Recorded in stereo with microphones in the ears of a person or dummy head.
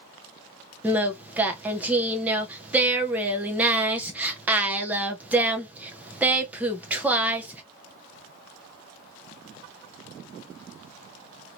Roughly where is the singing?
Centre.